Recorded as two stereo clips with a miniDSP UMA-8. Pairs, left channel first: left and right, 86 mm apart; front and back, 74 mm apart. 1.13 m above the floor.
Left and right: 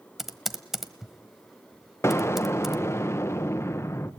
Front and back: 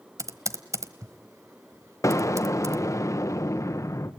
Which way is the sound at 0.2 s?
175° right.